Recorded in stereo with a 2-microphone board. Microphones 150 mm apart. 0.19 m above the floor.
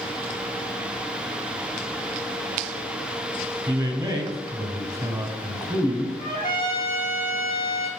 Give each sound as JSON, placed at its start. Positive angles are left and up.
{"t": 3.7, "sound": "a man speaking", "side_deg": -25, "distance_m": 1.1}
{"t": 6.2, "sound": "a trumpet", "side_deg": 65, "distance_m": 1.9}